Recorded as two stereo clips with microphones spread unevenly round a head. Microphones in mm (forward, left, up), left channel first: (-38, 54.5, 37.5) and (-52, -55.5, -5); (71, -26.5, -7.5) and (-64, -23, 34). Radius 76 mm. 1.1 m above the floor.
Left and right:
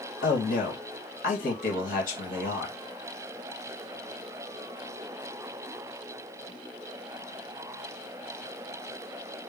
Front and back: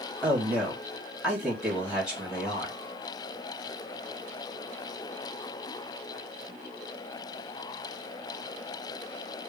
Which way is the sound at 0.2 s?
90° left.